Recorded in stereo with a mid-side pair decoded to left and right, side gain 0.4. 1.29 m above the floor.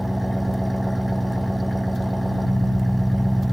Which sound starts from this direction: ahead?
An engine running, at 0.0 s.